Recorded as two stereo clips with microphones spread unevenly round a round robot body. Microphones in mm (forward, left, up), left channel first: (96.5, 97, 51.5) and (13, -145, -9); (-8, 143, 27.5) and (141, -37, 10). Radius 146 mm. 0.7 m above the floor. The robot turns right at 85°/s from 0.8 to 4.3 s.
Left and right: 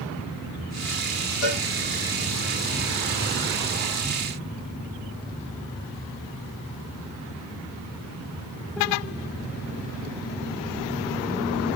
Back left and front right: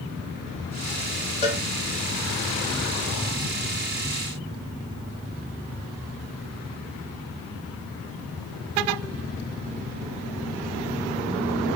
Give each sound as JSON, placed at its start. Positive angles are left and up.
{"t": 1.4, "sound": "a cowbell", "azimuth_deg": 70, "distance_m": 1.4}